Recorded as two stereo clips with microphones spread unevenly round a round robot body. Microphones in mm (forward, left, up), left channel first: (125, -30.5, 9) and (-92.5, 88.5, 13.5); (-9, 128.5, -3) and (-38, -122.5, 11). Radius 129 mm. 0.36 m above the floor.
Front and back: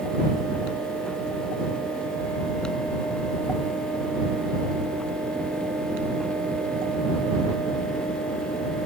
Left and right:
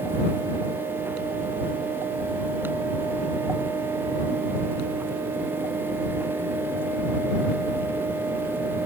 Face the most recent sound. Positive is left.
No sound to turn to.